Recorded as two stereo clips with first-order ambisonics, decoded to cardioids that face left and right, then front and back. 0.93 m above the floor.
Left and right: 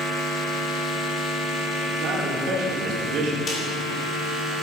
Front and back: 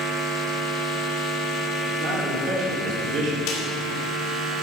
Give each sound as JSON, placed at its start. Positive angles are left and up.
{"t": 2.0, "sound": "a man speaking", "azimuth_deg": -135, "distance_m": 3.0}
{"t": 3.5, "sound": "a snare drum", "azimuth_deg": 25, "distance_m": 2.5}